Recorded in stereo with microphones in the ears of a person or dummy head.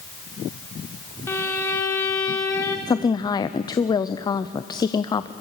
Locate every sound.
1.3 s a violin: 10° left (ahead or behind), 1.2 m
2.9 s a woman speaking: 20° left (ahead or behind), 0.6 m